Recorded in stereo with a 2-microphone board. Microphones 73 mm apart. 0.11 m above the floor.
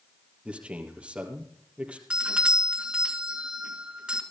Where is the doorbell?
15° right (ahead or behind), 2 m.